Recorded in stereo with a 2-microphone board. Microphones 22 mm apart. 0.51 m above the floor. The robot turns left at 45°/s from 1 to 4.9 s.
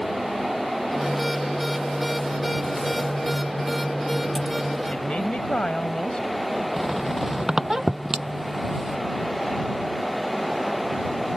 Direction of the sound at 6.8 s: 30° right (ahead or behind).